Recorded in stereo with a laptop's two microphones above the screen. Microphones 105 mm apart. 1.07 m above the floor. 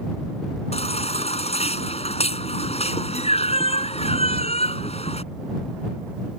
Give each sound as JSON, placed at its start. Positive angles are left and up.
{"t": 0.7, "sound": "a baby crying", "side_deg": 75}